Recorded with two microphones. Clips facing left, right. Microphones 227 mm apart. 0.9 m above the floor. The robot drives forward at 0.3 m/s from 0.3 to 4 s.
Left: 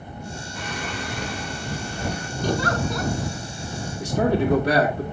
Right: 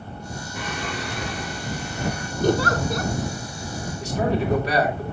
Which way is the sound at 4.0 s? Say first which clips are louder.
Left 3 dB; 50° left (ahead or behind).